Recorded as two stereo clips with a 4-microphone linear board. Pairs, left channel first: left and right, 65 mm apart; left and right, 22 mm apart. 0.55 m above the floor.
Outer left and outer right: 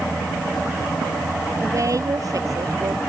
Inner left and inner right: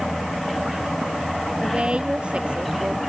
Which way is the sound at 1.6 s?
60° right (ahead or behind).